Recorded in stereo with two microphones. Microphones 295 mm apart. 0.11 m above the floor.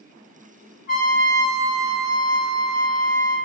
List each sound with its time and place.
0.9 s a trumpet: 45° right (ahead or behind), 1.3 m